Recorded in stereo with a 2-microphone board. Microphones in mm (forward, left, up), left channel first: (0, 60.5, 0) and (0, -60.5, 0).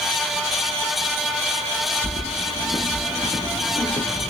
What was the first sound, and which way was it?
Keys jangling, 50° left (ahead or behind).